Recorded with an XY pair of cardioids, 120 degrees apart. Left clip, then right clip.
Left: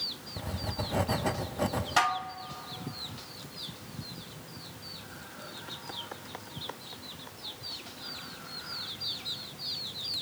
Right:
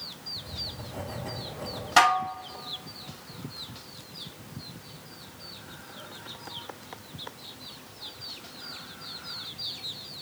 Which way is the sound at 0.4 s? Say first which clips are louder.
Left 1 dB; 50° left.